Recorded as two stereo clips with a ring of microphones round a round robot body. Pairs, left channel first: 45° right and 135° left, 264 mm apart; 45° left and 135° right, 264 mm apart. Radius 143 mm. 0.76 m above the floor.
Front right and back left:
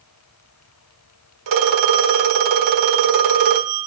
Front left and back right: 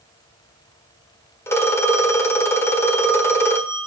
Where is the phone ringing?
125° left, 1.4 m.